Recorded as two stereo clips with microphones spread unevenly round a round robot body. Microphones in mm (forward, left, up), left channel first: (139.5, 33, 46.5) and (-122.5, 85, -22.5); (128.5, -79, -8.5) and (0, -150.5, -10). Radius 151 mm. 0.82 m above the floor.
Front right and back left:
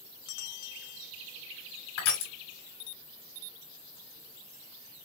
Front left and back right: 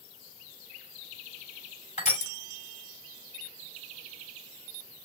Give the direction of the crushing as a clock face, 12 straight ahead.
12 o'clock.